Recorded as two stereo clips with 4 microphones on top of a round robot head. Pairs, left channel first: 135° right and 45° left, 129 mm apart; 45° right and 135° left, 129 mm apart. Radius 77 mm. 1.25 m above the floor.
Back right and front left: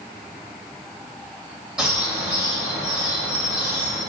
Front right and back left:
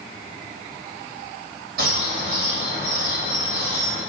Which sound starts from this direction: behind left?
A bird, at 1.8 s.